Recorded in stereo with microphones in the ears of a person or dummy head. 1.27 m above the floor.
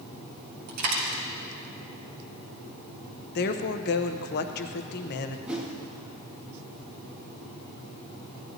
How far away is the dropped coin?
About 2.5 m.